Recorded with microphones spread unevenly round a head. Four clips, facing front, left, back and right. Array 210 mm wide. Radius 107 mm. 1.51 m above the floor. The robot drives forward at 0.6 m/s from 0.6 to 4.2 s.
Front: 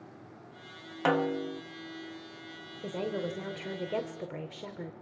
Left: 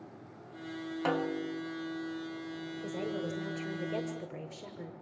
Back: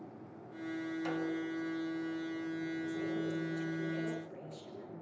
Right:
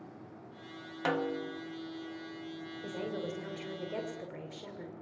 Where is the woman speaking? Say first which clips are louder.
Left 1 dB, front 7 dB; 5° left, 6.5 m.